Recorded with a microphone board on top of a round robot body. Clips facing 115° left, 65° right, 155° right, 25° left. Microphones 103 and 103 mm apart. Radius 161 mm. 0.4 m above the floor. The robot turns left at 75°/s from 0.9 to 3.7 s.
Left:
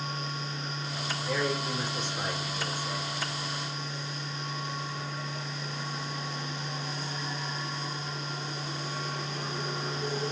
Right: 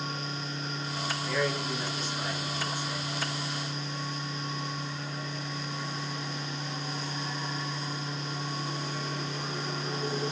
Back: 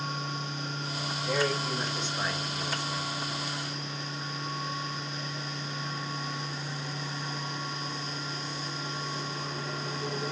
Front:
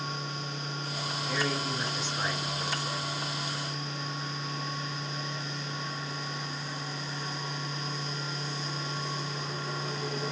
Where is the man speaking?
170° right, 2 m; by 3.1 s 50° left, 2 m.